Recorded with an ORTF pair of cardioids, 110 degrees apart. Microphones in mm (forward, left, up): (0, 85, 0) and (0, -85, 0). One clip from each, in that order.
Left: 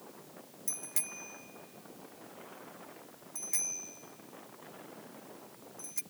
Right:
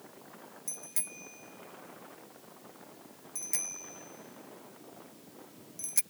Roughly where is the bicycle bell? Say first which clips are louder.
Left 2 dB; ahead.